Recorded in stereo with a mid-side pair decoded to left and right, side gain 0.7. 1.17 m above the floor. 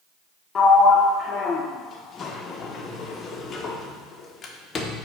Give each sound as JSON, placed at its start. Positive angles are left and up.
{"t": 0.6, "sound": "a sliding door", "azimuth_deg": 30, "distance_m": 0.6}